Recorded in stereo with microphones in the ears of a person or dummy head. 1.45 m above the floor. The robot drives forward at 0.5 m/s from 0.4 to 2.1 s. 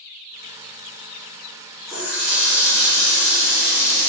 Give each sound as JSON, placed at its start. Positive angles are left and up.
{"t": 1.9, "sound": "a running tap", "side_deg": -5, "distance_m": 1.5}